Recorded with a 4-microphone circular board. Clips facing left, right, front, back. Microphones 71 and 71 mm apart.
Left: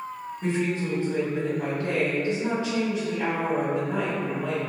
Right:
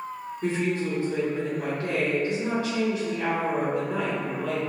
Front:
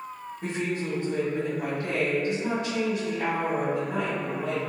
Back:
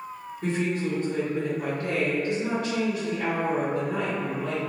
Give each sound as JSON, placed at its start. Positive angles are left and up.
{"t": 0.4, "sound": "a woman speaking", "azimuth_deg": 40, "distance_m": 1.5}